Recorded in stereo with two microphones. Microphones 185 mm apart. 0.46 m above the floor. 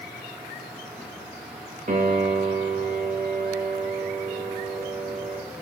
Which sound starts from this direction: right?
A piano, at 1.9 s.